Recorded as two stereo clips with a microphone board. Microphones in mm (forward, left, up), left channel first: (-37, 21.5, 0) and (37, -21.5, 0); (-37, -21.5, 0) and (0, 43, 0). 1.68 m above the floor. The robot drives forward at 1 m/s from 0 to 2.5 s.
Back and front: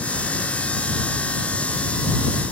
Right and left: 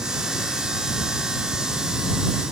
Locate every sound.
Only background noise.